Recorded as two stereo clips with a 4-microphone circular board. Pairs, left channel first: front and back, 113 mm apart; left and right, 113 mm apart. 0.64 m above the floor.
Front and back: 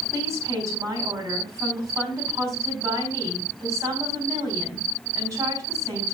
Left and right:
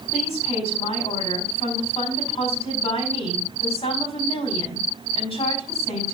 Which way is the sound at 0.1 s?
120° left.